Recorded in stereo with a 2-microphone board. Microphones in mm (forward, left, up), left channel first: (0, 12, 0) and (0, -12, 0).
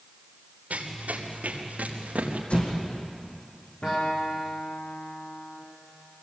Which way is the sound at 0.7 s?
75° right (ahead or behind).